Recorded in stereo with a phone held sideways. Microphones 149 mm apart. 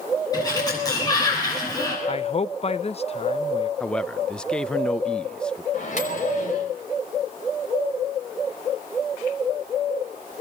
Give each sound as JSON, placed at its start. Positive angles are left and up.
{"t": 0.3, "sound": "a sliding door", "side_deg": 25, "distance_m": 9.5}
{"t": 2.1, "sound": "a man speaking", "side_deg": 40, "distance_m": 0.6}
{"t": 3.8, "sound": "a man speaking", "side_deg": 5, "distance_m": 0.5}
{"t": 5.7, "sound": "a microwave", "side_deg": 55, "distance_m": 4.5}